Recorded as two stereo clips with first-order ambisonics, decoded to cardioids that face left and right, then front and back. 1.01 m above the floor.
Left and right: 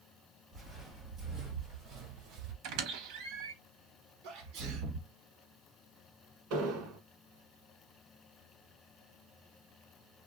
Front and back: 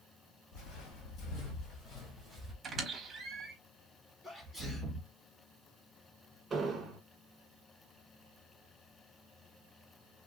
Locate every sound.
0.5 s footsteps: 15° right, 2.5 m; by 2.5 s 80° right, 1.5 m
2.6 s a squeak: 110° right, 1.0 m
4.2 s a sneeze: 75° right, 1.3 m
6.5 s an explosion: 110° right, 1.3 m